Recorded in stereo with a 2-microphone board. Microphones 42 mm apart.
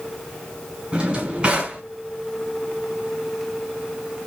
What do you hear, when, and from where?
0.9 s a drawer: 25° right (ahead or behind), 1.8 m